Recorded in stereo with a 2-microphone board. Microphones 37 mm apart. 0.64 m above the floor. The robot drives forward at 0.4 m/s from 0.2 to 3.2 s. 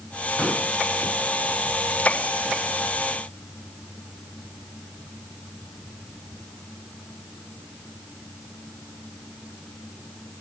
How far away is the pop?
About 8 m.